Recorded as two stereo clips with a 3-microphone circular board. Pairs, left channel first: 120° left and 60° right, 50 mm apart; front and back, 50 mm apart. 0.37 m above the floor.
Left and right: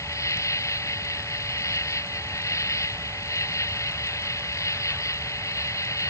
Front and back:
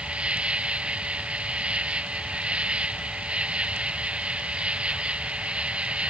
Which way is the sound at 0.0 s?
115° left.